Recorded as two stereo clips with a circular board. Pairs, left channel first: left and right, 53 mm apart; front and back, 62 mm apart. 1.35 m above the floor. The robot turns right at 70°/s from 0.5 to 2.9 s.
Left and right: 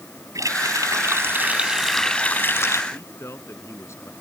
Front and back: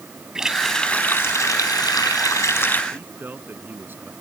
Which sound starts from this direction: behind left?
A man speaking, at 2.9 s.